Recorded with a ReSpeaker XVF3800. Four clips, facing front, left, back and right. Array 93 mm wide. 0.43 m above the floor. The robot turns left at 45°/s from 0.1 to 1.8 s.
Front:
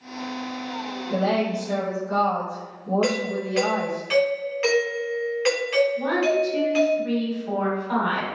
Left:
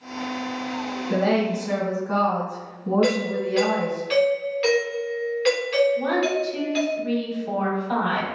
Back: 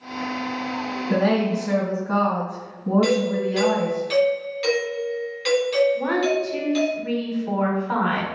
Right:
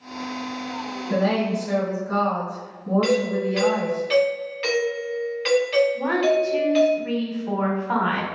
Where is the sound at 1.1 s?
Straight behind, 2 m; by 4.0 s 150° left, 2 m.